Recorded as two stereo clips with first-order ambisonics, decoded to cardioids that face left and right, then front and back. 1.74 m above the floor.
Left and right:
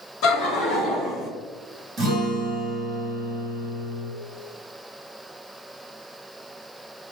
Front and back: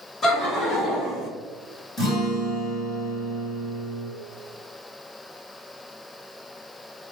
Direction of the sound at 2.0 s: 50° right.